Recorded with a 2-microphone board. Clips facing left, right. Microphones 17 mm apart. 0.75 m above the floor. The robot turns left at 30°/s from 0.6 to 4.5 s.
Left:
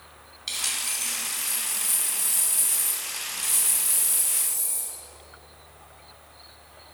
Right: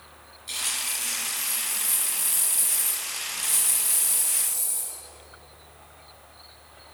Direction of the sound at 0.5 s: 85° left.